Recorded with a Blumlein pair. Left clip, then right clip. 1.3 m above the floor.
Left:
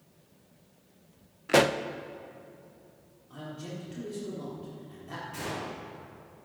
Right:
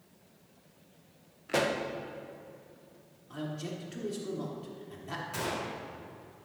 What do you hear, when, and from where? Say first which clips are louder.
1.5 s a pop: left 6 dB; 25° left, 0.5 m
3.3 s a man speaking: right 2 dB; 15° right, 3.5 m
5.3 s a gunshot: right 1 dB; 25° right, 4.5 m